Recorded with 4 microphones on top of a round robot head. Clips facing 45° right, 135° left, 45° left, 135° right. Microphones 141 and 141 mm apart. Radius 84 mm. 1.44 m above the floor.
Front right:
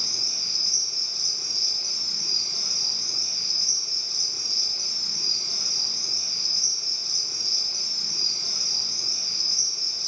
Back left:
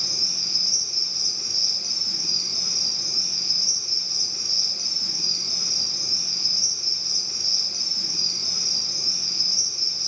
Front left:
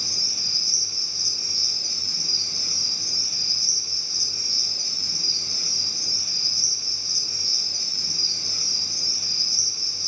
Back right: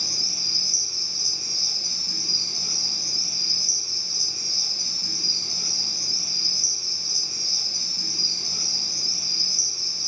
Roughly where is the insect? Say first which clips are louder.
Back left 3 dB, back right 1 dB; behind left.